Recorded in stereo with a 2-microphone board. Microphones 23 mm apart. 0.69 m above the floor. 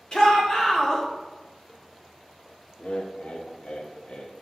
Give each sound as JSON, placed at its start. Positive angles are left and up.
{"t": 0.1, "sound": "a shout", "side_deg": 25, "distance_m": 2.0}
{"t": 2.8, "sound": "laughter", "side_deg": 50, "distance_m": 0.9}